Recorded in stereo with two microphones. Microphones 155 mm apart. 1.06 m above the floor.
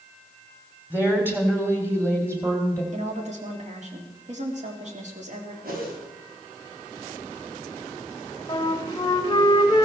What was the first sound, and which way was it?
A woman speaking, 10° right (ahead or behind).